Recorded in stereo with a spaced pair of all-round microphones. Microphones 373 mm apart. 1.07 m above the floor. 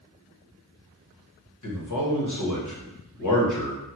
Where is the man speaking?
50° left (ahead or behind), 1.0 m.